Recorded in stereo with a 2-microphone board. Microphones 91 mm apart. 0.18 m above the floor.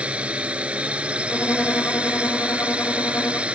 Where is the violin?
20° left (ahead or behind).